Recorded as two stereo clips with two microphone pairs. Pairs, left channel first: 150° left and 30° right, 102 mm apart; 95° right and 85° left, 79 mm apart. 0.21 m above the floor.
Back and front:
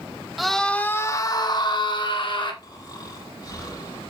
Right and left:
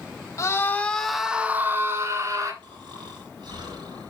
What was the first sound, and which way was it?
A scream, 115° right.